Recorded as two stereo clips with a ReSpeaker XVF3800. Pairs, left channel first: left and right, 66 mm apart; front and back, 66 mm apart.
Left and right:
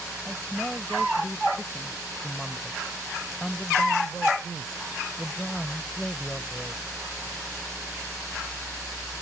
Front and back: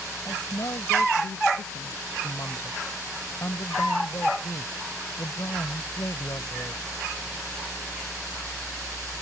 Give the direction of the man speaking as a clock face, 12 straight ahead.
12 o'clock.